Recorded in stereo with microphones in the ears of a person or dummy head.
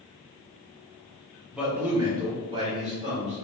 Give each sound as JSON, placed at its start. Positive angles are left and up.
{"t": 1.5, "sound": "a man speaking", "side_deg": -5, "distance_m": 0.9}